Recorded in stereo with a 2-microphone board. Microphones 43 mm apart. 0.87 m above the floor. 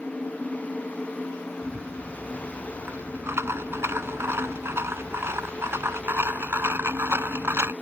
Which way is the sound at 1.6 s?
70° right (ahead or behind).